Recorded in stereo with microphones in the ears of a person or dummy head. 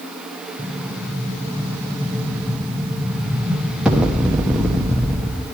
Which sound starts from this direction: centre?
An explosion, at 0.6 s.